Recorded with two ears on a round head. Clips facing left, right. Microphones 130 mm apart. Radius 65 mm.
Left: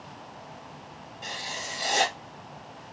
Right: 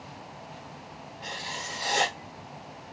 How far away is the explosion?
No explosion in this recording.